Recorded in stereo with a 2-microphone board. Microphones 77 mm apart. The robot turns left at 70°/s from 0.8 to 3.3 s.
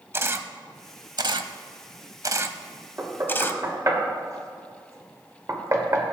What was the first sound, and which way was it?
A camera shutter, 30° right (ahead or behind).